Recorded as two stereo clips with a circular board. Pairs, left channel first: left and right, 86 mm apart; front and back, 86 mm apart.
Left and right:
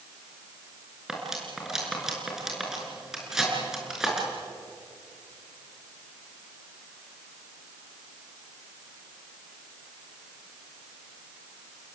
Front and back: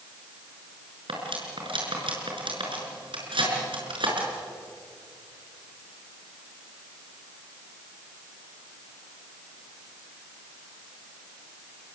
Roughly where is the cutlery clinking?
Behind.